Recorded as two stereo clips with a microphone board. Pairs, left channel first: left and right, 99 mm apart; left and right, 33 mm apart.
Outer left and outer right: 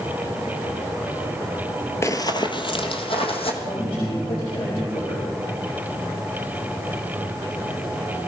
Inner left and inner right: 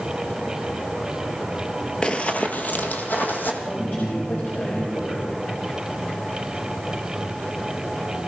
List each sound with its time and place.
2.0 s running footsteps: 30° left (ahead or behind), 0.9 m; by 3.5 s 70° left (ahead or behind), 2.5 m
3.6 s a man speaking: 65° left (ahead or behind), 4 m